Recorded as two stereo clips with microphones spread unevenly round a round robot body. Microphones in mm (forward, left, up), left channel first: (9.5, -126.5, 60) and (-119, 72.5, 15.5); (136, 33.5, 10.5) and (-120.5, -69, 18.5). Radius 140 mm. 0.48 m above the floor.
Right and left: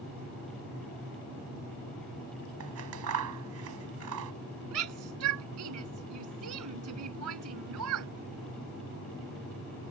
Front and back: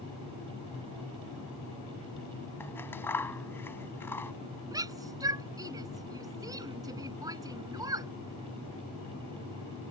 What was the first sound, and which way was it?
Scissors, 105° left.